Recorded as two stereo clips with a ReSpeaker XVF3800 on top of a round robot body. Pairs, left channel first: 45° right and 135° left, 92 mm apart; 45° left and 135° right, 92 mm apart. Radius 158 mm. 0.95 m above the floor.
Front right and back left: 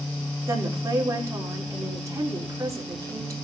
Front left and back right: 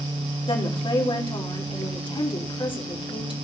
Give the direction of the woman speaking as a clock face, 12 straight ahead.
9 o'clock.